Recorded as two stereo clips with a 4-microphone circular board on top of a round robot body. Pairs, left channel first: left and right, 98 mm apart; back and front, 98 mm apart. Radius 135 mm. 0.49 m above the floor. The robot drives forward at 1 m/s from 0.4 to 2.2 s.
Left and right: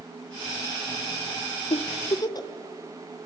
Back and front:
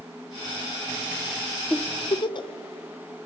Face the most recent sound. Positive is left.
turn(degrees=140)